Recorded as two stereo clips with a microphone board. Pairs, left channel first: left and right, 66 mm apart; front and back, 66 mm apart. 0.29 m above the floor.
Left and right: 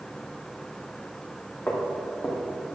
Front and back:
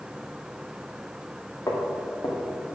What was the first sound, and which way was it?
Footsteps, 35° left.